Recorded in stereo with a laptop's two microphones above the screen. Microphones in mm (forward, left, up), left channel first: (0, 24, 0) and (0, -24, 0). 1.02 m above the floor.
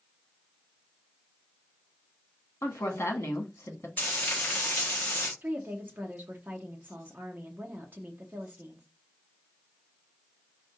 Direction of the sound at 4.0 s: 45° left (ahead or behind).